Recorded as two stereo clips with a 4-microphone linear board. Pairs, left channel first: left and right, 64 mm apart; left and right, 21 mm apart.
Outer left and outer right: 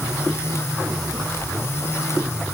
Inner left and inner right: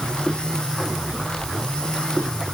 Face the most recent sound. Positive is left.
No sound to turn to.